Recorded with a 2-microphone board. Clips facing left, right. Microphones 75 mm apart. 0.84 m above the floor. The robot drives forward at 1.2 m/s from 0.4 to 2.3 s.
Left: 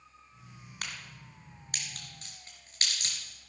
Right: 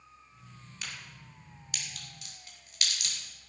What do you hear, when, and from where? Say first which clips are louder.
0.8 s a crack: left 2 dB; 55° left (ahead or behind), 3 m; by 3.1 s 35° left (ahead or behind), 4 m